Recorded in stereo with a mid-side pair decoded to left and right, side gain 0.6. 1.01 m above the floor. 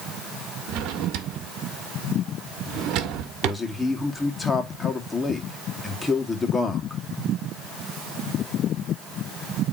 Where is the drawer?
65° right, 1.3 m.